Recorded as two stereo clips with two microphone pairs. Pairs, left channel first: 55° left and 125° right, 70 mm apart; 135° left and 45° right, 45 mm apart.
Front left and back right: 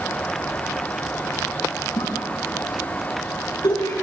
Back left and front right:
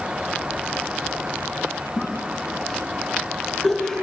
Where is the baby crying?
I don't hear a baby crying.